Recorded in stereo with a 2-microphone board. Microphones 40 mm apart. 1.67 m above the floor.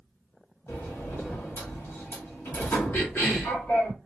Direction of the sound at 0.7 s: 60° left (ahead or behind).